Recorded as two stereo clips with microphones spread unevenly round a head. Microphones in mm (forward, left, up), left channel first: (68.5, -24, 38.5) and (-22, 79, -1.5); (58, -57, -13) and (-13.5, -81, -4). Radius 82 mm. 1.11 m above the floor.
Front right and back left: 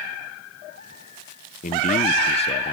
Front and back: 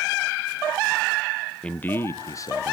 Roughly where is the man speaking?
Ahead right.